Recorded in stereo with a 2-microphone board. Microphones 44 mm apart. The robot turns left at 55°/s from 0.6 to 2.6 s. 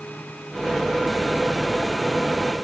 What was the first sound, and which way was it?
Only background noise.